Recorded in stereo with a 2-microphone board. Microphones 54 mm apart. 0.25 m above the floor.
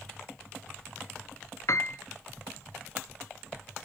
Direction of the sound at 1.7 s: 65° left (ahead or behind).